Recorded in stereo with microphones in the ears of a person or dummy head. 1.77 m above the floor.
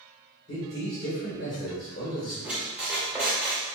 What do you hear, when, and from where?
0.5 s a man speaking: 40° left (ahead or behind), 1.5 m
2.4 s a squeak: 10° right (ahead or behind), 0.8 m